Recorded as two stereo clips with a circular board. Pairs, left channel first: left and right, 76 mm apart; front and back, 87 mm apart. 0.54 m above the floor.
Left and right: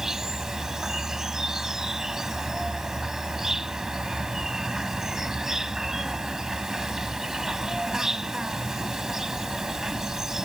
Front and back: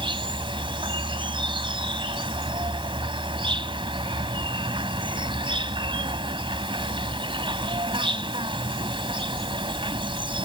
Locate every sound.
0.0 s an insect: 175° right